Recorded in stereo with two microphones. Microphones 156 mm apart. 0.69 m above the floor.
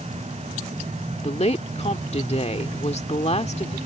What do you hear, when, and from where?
1.2 s a woman speaking: 50° left (ahead or behind)